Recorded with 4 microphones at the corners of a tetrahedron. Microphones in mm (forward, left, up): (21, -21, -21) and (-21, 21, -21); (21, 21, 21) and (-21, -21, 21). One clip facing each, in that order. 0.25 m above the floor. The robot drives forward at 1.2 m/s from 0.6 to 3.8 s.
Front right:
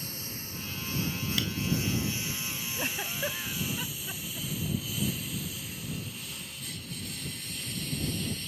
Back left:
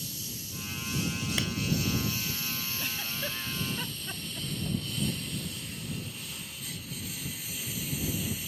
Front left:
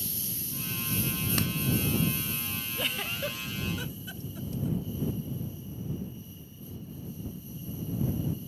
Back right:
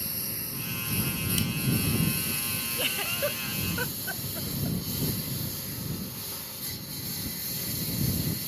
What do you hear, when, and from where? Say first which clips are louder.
0.0 s a lawn mower: front right 1 dB, back right 2 dB; 90° right; by 8.5 s 140° right
1.4 s a clap: even, front left 1 dB; 75° left
2.8 s a giggle: front right 7 dB, back right 2 dB; 45° right; by 4.8 s 140° right